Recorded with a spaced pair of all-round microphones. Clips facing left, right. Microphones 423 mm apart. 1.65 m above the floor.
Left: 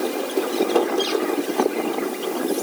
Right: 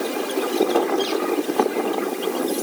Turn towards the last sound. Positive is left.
No sound to turn to.